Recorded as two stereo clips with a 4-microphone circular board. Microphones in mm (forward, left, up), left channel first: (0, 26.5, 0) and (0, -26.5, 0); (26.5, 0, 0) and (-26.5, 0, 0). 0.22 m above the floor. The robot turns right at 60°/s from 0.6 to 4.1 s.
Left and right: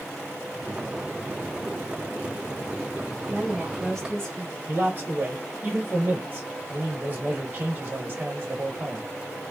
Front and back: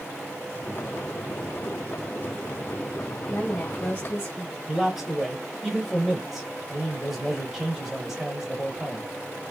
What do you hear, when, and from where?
3.3 s a woman speaking: 20° right, 1.2 m; by 4.6 s 25° left, 1.2 m
4.7 s a man speaking: 100° right, 1.3 m